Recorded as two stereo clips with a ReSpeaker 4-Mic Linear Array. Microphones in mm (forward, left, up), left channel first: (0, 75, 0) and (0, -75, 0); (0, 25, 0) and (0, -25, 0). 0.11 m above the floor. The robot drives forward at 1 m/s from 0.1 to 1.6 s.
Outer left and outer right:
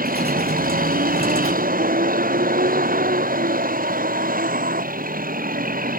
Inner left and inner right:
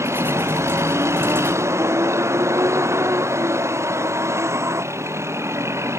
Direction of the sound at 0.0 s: 80° right.